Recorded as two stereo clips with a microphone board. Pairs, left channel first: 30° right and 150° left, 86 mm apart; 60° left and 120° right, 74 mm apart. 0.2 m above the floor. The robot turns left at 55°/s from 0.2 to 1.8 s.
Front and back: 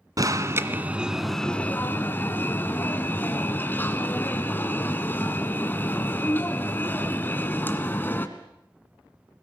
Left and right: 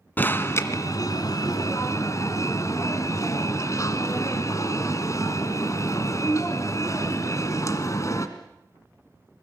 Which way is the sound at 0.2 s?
120° left.